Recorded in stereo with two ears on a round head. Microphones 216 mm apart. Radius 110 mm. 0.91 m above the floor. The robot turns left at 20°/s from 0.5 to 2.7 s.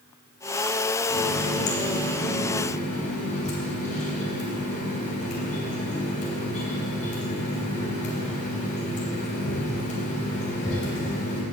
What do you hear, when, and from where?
1.1 s a running tap: 65° left, 3.5 m; by 11.4 s 30° left, 3.5 m